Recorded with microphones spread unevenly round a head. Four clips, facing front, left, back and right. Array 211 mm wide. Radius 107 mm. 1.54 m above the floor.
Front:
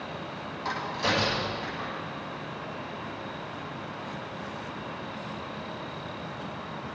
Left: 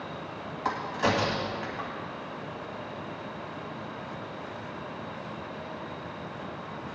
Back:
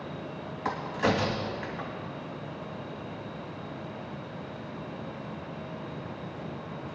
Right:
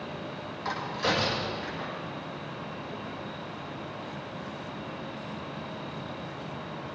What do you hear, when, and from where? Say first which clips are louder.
0.7 s a crack: left 2 dB, back 2 dB; 135° left, 2.5 m